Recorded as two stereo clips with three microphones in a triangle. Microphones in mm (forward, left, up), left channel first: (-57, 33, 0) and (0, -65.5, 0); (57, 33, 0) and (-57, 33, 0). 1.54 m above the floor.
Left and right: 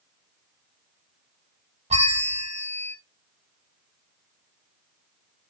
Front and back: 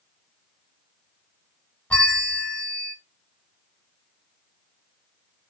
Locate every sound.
1.9 s a bell: 80° right, 0.6 m